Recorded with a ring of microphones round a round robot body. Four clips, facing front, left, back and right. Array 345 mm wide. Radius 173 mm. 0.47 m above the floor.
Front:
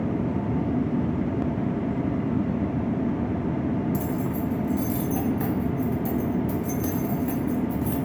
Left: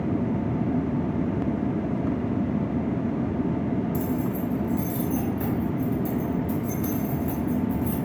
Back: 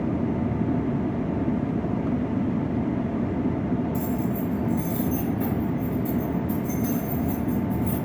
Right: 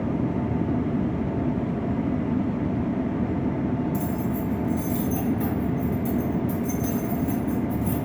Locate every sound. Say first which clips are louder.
3.9 s keys jangling: even, back 1 dB; 5° left, 1.2 m